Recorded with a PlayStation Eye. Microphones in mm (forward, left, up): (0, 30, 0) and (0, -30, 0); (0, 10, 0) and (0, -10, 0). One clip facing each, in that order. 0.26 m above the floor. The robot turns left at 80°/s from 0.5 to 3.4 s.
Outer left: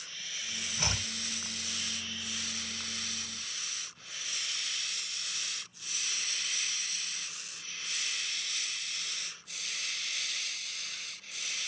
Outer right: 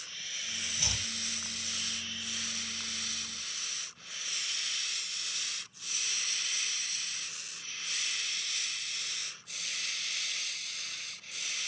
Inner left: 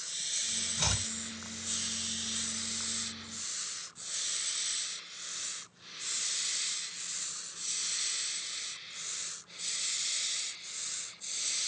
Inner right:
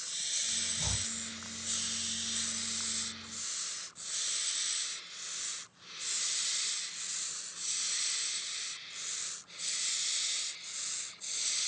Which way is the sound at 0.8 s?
45° left (ahead or behind).